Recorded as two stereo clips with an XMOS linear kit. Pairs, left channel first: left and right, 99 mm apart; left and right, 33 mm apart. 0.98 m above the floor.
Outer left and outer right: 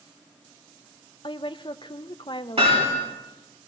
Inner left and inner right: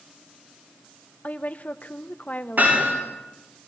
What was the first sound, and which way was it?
A woman speaking, 55° left (ahead or behind).